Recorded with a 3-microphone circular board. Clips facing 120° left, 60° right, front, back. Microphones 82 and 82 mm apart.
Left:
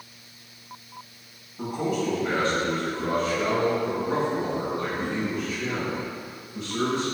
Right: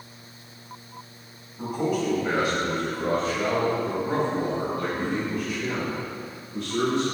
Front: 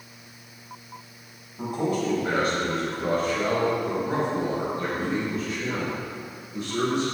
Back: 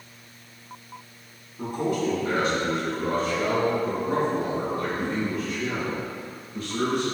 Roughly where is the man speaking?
Ahead left.